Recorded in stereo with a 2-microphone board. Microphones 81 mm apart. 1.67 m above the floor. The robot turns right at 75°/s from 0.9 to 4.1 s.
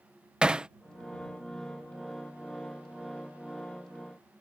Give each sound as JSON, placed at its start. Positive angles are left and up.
{"t": 0.4, "sound": "hammering", "side_deg": -10}